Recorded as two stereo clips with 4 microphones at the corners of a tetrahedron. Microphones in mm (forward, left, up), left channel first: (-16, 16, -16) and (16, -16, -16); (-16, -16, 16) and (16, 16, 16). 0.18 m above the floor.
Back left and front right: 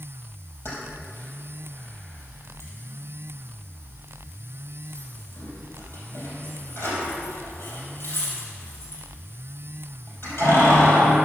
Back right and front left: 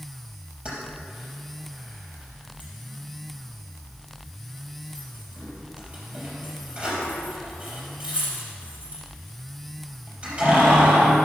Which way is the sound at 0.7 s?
105° left.